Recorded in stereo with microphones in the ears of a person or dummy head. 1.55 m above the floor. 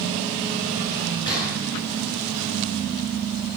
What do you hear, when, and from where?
1.3 s a gunshot: 20° left (ahead or behind), 9.5 m